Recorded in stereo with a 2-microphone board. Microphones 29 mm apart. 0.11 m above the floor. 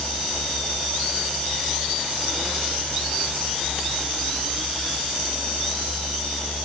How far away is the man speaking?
I don't hear a man speaking.